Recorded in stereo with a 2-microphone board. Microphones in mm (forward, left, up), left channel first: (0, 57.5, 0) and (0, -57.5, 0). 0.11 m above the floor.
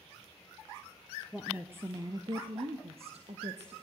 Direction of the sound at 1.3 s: 5° right (ahead or behind).